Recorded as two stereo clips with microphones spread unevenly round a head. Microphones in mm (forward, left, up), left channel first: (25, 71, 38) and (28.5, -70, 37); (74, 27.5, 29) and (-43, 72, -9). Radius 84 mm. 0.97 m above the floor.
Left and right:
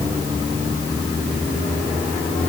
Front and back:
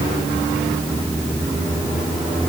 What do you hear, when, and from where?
Only background noise.